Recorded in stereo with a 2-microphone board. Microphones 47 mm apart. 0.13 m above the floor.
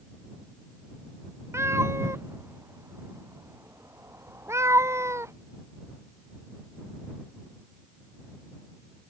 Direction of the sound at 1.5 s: 75° right (ahead or behind).